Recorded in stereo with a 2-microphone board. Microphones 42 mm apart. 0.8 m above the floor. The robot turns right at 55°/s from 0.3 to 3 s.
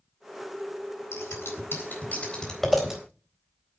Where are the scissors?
80° left, 4 m; by 3.0 s 15° right (ahead or behind), 4 m.